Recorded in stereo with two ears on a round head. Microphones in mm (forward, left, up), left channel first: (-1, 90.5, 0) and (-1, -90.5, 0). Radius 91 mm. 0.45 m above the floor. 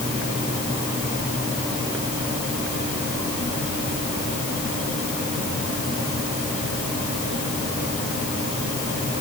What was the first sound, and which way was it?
Only background noise.